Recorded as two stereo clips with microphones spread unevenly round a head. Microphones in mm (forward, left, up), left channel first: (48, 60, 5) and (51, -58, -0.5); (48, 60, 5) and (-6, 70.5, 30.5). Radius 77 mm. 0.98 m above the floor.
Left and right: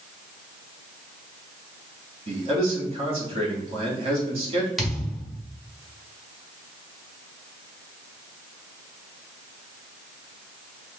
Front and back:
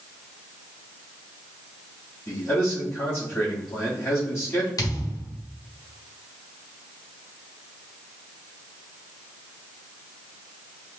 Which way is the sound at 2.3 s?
55° right.